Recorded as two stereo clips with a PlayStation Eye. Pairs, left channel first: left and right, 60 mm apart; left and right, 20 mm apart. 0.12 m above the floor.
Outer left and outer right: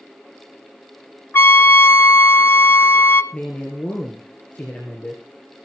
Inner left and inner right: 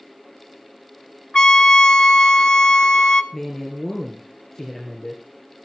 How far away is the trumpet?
About 0.5 m.